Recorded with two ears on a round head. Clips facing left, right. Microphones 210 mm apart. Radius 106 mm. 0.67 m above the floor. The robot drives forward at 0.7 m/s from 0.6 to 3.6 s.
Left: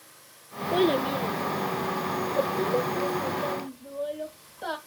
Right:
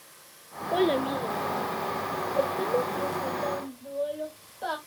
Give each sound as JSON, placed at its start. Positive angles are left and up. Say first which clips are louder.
{"t": 0.7, "sound": "a child speaking", "louder": "left 1 dB", "side_deg": 15, "distance_m": 0.6}